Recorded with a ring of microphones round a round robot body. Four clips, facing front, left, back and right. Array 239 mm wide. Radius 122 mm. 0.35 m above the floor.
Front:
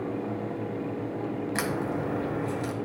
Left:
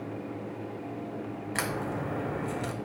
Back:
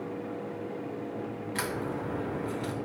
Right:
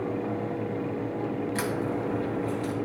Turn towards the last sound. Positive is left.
turn(degrees=35)